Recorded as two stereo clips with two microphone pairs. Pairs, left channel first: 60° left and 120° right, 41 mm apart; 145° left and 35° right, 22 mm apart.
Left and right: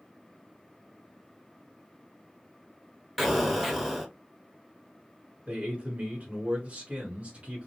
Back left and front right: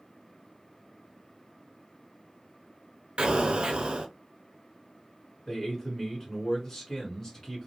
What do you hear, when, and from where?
3.2 s an explosion: 40° right, 0.8 m
5.5 s a man speaking: 155° right, 1.9 m